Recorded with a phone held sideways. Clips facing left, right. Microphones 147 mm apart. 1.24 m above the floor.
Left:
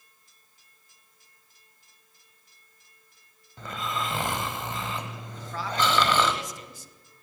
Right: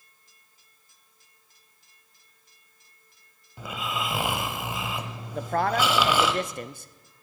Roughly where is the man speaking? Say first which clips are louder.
Right 7 dB; right.